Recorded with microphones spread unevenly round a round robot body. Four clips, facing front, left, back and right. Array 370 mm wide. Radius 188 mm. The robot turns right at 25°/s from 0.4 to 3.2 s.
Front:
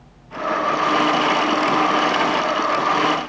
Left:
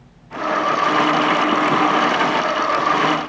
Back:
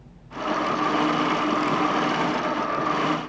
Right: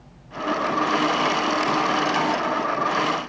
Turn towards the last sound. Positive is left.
No sound to turn to.